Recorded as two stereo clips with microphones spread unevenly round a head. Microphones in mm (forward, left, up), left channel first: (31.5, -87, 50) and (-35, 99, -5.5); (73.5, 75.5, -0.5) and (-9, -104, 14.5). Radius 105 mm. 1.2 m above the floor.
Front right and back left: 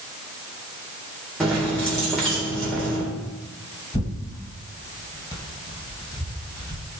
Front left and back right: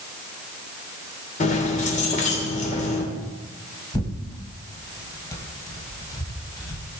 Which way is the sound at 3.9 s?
10° right.